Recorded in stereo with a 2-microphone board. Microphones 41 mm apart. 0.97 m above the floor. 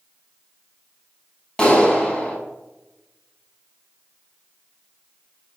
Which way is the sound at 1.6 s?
20° left (ahead or behind).